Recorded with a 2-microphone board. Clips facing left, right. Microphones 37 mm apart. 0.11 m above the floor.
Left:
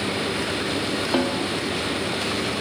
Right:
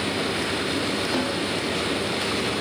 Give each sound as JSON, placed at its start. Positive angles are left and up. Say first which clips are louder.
{"t": 1.1, "sound": "a snare drum", "louder": "left 2 dB", "side_deg": 30, "distance_m": 4.0}